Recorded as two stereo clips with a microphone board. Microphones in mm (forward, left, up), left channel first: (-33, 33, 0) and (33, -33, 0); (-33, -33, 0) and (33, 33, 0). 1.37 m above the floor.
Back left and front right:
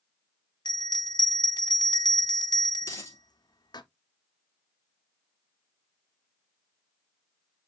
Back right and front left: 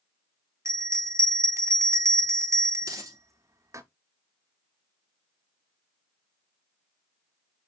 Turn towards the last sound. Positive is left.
turn(degrees=85)